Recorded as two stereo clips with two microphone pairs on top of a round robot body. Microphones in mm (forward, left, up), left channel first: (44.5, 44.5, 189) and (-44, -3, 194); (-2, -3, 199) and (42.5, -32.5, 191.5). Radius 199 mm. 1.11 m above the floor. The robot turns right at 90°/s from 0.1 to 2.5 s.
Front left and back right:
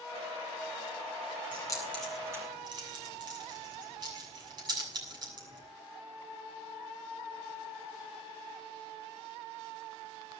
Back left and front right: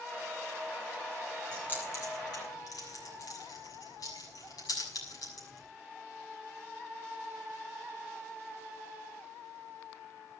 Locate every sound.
1.5 s keys jangling: 70° left, 6.5 m; by 5.7 s 160° left, 6.5 m